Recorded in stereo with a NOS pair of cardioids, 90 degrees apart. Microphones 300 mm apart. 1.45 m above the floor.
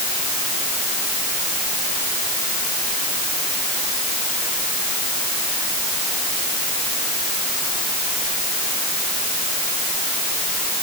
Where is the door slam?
I don't hear a door slam.